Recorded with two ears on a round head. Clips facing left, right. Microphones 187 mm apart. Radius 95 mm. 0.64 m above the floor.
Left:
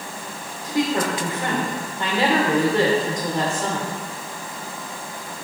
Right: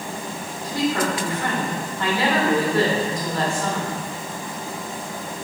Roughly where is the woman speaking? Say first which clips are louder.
Left 1 dB; centre.